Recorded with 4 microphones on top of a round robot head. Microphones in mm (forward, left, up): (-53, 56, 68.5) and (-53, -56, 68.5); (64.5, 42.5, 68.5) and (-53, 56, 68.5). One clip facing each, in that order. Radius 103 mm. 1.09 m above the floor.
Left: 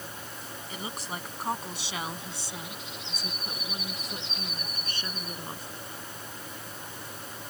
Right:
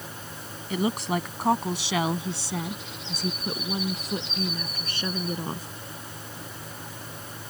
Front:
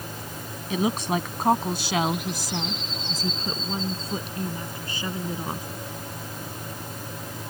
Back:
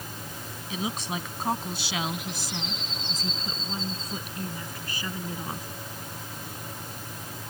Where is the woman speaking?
50° right; by 5.7 s 80° right.